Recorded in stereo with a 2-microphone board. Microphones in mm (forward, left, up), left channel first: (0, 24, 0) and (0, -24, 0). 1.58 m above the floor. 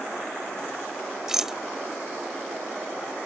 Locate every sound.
1.3 s a rattle: 15° right (ahead or behind)